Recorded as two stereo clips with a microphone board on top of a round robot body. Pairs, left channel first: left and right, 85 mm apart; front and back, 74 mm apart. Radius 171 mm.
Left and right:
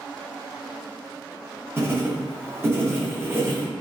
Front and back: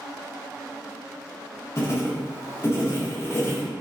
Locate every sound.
1.8 s writing: 40° right, 1.1 m